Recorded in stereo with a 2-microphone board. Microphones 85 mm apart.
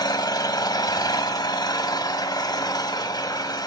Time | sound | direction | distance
0.0 | an engine running | 50° left (ahead or behind) | 1.0 m